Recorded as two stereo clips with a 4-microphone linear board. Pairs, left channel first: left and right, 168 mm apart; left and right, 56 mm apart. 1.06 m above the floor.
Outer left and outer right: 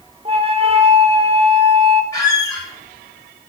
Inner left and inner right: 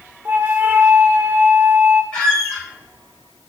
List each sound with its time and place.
0.2 s a flute: 35° right (ahead or behind), 0.7 m
2.1 s a squeak: 15° left (ahead or behind), 3.5 m